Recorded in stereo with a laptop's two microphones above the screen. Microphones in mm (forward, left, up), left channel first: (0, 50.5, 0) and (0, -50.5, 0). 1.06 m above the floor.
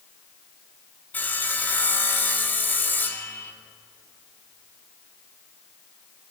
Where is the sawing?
20° left (ahead or behind), 0.6 m.